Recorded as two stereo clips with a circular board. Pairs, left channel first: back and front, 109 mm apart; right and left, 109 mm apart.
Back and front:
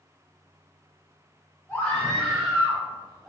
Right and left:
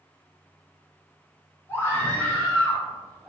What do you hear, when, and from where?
1.7 s a scream: 125° right, 1.5 m; by 3.3 s straight ahead, 1.6 m